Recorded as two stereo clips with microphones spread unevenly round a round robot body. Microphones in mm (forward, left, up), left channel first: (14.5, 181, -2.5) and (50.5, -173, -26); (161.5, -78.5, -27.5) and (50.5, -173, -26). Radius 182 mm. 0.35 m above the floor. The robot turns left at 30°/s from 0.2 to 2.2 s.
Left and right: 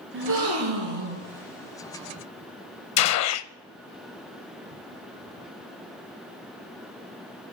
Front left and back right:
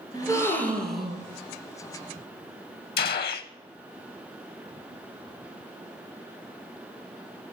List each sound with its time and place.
0.1 s a gasp: 25° right, 4.5 m; by 1.2 s 60° right, 4.5 m
3.0 s a gunshot: 45° left, 0.5 m